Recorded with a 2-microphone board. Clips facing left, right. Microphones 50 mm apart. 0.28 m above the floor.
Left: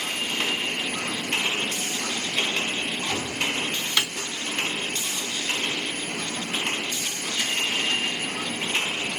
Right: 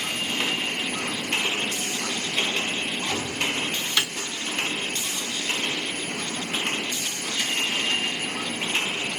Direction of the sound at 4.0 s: 15° left (ahead or behind).